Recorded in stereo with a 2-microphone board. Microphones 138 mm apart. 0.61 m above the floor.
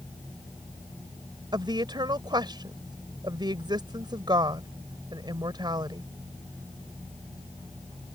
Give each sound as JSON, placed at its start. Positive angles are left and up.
{"t": 1.5, "sound": "a woman speaking", "side_deg": -35}